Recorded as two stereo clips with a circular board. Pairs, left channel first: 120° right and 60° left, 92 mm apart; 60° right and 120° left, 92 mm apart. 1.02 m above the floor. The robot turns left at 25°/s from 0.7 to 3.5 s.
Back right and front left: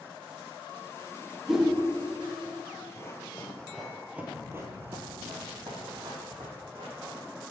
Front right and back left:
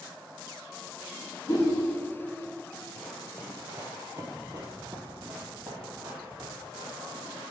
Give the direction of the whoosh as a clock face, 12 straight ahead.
1 o'clock.